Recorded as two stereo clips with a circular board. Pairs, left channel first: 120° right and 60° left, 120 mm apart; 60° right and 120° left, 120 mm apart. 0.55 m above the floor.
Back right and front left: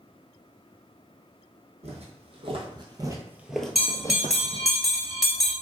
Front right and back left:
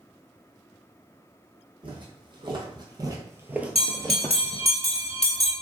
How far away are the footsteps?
About 1.2 m.